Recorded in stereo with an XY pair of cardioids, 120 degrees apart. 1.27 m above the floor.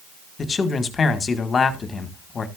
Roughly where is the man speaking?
Ahead left.